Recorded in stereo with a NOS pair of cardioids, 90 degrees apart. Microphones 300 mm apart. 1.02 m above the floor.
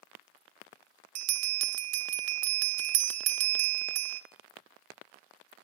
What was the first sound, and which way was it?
A bell, 55° right.